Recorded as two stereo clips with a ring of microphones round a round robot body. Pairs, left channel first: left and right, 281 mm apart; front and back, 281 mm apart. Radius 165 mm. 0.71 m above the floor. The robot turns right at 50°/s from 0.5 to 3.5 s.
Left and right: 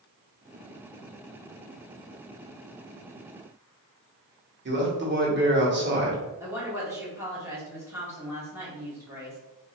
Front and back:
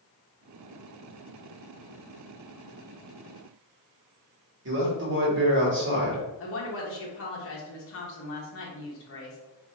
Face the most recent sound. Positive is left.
turn(degrees=-10)